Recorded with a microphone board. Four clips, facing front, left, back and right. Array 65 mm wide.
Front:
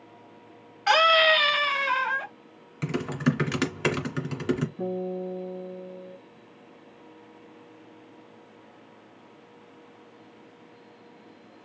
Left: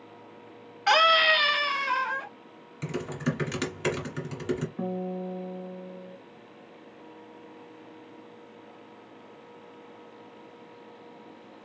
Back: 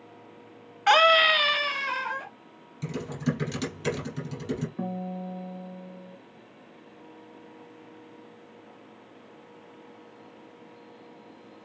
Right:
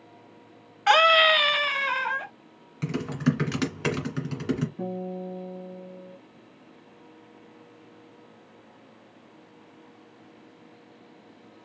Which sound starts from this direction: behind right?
A scream, at 0.9 s.